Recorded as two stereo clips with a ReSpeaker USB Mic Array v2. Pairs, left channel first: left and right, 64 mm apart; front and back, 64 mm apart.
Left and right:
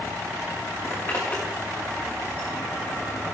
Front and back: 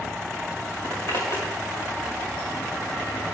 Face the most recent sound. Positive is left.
turn(degrees=35)